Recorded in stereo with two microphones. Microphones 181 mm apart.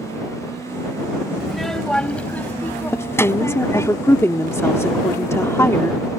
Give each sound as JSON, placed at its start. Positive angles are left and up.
{"t": 1.4, "sound": "a child speaking", "side_deg": 0}
{"t": 2.9, "sound": "a woman speaking", "side_deg": 15}